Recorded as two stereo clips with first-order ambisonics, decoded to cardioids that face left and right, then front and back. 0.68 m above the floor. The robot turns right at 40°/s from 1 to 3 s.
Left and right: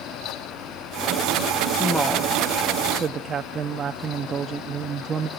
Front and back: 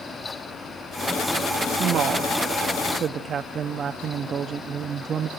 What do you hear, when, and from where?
1.7 s a woman speaking: 165° left, 0.6 m; by 5.3 s 145° right, 0.6 m